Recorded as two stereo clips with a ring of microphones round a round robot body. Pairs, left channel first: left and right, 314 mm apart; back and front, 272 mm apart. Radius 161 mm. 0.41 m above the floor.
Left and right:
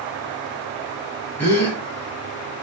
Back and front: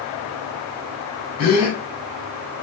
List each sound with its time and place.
1.4 s a gasp: 175° left, 1.2 m